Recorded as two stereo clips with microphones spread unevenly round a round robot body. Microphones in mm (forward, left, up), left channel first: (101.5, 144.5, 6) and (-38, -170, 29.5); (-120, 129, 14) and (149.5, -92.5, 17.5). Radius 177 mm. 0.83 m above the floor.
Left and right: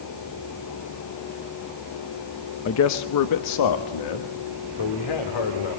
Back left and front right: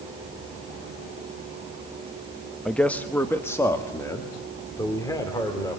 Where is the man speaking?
55° left, 0.8 m; by 5.8 s 60° left, 3 m.